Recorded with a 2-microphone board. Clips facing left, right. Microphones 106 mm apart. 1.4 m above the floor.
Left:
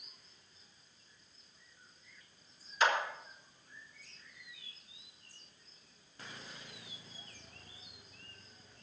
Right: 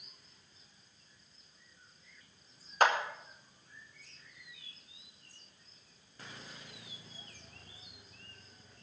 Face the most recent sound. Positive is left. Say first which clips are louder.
# right 3 dB
turn(degrees=-55)  # may be behind; listen again after turning